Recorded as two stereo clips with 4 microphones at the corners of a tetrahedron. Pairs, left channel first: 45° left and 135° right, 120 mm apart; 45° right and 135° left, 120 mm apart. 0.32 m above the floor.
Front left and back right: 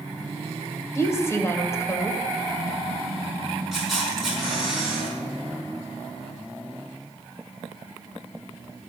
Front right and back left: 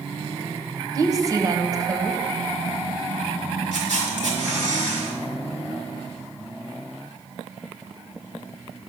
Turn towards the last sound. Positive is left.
turn(degrees=135)